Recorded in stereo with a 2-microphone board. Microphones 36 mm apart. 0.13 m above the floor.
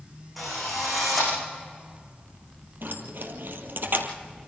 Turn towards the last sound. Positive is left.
turn(degrees=-65)  # may be behind; listen again after turning